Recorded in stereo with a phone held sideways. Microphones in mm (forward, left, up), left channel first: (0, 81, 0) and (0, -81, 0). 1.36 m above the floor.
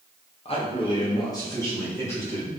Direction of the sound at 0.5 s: 35° left (ahead or behind).